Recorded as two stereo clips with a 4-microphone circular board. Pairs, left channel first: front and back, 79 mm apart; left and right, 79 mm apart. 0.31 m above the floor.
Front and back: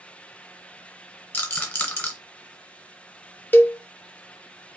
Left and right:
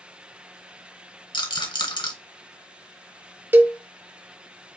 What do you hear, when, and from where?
1.3 s a rattle: 70° left, 2.5 m
3.5 s a cowbell: 45° right, 0.5 m